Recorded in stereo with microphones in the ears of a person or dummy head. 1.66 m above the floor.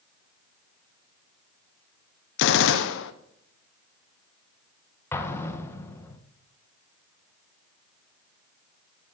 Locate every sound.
2.4 s a gunshot: 75° left (ahead or behind), 0.9 m
5.1 s an explosion: 10° left (ahead or behind), 1.3 m